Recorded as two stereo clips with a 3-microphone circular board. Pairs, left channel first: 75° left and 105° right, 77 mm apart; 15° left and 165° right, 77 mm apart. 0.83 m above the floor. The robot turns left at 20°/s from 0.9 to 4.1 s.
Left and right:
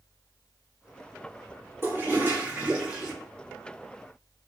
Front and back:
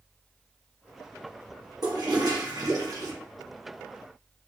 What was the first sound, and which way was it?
A toilet flushing, 160° right.